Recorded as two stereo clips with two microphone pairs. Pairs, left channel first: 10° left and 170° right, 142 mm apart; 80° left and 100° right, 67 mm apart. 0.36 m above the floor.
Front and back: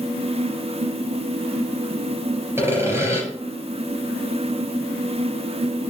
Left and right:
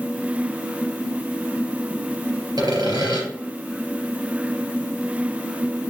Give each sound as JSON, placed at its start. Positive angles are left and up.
{"t": 2.6, "sound": "sawing", "azimuth_deg": -95, "distance_m": 3.5}